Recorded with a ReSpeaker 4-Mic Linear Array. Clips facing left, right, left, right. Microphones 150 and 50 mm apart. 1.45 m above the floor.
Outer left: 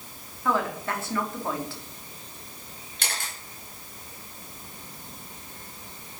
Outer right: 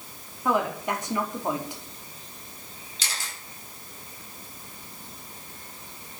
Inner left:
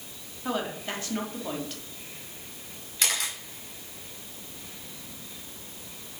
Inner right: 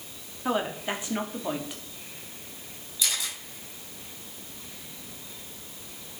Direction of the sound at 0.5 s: 20° right (ahead or behind).